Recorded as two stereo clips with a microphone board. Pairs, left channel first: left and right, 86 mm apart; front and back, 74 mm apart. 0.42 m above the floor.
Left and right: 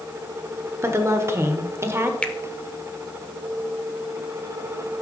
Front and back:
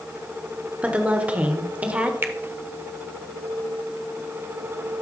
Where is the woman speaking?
125° right, 0.9 m.